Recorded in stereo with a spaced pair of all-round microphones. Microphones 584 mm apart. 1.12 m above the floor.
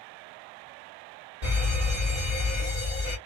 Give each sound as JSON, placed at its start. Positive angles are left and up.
{"t": 1.4, "sound": "a fire alarm", "side_deg": -55, "distance_m": 2.5}